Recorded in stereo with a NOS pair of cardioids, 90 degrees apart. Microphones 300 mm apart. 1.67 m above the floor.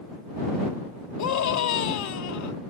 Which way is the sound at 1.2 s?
70° left.